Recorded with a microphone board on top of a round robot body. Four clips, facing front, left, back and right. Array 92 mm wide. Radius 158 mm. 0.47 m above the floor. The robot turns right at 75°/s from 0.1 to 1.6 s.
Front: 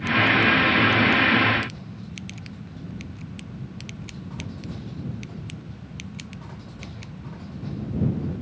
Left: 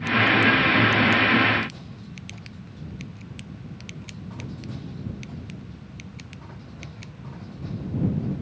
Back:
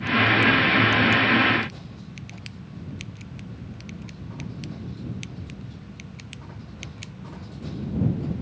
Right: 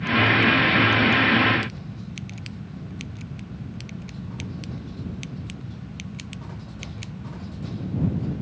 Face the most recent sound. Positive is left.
No sound to turn to.